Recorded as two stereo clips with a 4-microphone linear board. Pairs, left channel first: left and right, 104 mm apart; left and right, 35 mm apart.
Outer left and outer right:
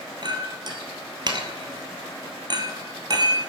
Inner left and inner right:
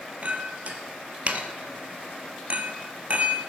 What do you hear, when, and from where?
0.2 s a clink: 45° right (ahead or behind), 1.5 m